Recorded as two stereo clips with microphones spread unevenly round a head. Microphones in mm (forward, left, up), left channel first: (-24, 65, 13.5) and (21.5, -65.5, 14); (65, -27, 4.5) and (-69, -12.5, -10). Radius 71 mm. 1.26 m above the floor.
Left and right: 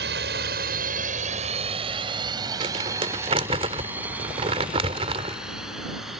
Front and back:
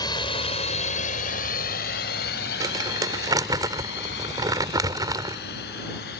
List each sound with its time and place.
0.0 s a drone: 65° right; by 6.2 s 20° left
2.6 s crumpling: 120° right